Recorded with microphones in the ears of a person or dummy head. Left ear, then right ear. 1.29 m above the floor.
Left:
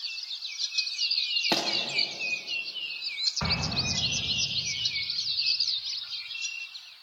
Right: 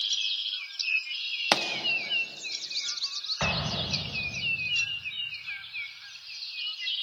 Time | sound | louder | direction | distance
1.5 | a pop | right 6 dB | 20° right (ahead or behind) | 0.8 m
3.4 | an explosion | even | 30° right (ahead or behind) | 1.2 m